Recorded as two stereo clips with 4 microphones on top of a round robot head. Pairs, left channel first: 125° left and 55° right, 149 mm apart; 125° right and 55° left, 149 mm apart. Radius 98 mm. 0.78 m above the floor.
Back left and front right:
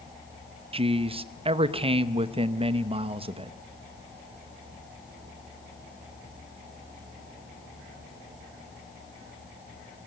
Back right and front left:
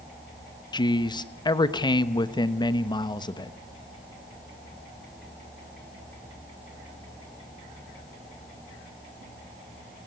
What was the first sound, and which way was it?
A man speaking, 80° right.